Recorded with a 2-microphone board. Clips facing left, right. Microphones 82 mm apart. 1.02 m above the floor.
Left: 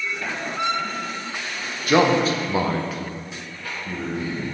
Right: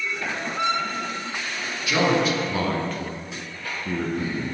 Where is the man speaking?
45° left (ahead or behind), 0.8 m; by 4.5 s 45° right (ahead or behind), 1.0 m.